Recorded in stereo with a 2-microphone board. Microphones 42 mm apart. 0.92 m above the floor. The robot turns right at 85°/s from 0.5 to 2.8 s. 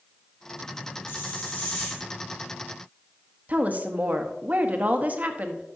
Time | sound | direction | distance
1.1 | a hiss | 95° left | 4.5 m
3.5 | a woman speaking | 40° right (ahead or behind) | 0.9 m